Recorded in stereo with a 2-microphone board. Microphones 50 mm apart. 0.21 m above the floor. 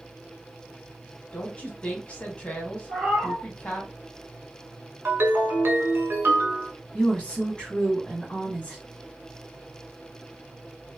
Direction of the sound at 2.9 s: 5° right (ahead or behind).